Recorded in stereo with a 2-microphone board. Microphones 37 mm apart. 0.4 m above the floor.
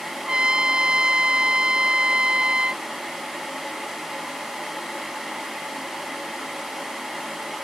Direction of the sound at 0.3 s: 30° right (ahead or behind).